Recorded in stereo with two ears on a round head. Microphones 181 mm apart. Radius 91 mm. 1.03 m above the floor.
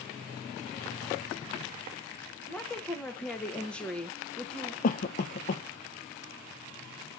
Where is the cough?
40° left (ahead or behind), 0.5 m.